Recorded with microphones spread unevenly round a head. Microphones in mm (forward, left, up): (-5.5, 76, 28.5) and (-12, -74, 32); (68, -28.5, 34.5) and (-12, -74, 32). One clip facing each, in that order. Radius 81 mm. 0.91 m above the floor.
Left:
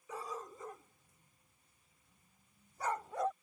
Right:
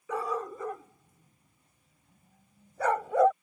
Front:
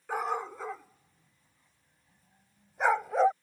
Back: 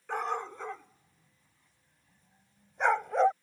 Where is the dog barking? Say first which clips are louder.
Right 12 dB, front 1 dB; 55° right.